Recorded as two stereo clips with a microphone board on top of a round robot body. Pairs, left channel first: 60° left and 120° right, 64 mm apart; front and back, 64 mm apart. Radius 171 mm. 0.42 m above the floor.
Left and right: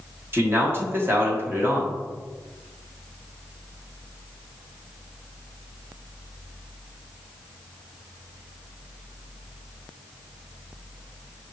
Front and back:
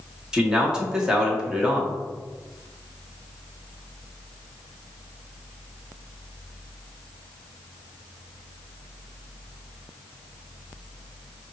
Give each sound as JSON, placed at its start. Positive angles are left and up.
{"t": 0.3, "sound": "a man speaking", "azimuth_deg": -105, "distance_m": 1.5}